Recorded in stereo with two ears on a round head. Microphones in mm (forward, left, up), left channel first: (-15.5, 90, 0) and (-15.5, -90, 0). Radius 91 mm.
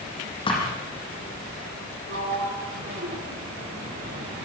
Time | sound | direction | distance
0.5 | a thud | 25° left (ahead or behind) | 8 m
2.1 | a sliding door | 50° right (ahead or behind) | 4.5 m